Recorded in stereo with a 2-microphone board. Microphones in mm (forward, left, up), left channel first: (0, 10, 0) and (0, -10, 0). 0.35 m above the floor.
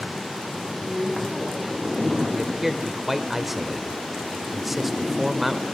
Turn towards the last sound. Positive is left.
turn(degrees=-10)  # may be behind; listen again after turning